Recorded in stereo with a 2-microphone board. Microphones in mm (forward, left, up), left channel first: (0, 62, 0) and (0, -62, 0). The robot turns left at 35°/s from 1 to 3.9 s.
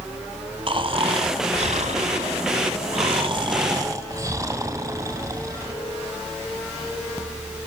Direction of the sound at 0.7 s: 50° right.